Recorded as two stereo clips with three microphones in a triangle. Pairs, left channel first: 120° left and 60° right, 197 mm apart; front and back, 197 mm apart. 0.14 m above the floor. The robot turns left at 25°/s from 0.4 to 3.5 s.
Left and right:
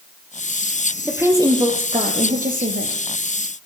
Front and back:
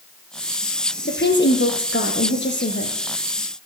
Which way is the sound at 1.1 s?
20° left.